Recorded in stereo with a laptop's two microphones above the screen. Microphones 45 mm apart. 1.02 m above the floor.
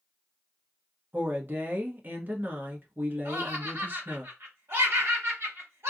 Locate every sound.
1.1 s a woman speaking: 45° right (ahead or behind), 1.1 m
3.2 s laughter: 75° right (ahead or behind), 1.6 m